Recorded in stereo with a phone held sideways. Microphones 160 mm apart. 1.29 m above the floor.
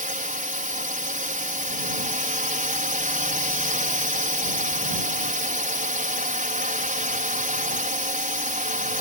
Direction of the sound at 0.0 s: 55° right (ahead or behind).